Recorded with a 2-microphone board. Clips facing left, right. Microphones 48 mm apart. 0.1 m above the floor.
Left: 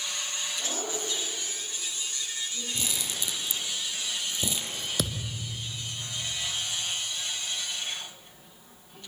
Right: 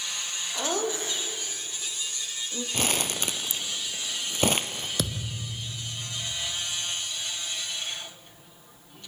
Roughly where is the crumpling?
Right.